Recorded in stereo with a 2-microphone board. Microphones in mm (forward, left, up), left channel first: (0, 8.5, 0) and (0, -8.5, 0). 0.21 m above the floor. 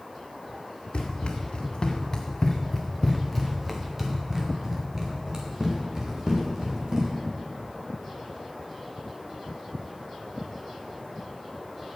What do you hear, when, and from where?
0.9 s running footsteps: 75° left (ahead or behind), 1.8 m; by 7.1 s 40° right (ahead or behind), 4 m